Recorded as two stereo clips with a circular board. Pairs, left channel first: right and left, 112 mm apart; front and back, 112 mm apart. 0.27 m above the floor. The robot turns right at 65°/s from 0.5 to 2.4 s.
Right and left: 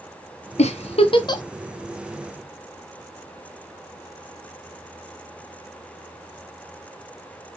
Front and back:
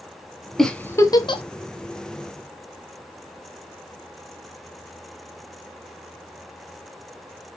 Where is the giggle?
90° right, 0.8 m; by 1.4 s 35° right, 0.8 m.